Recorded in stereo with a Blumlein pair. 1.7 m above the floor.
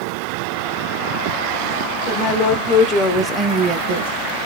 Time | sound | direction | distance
2.1 | a woman speaking | 40° left | 1.4 m